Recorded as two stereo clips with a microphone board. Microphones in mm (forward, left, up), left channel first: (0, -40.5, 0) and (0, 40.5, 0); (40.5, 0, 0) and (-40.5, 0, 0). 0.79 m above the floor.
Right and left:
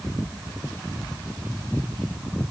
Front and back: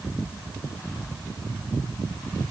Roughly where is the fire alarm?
No fire alarm in this recording.